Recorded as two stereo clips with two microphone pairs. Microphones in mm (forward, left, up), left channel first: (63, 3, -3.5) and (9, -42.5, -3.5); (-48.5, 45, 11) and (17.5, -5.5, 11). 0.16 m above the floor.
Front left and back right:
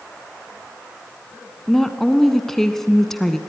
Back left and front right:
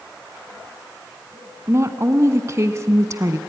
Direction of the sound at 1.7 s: 40° right.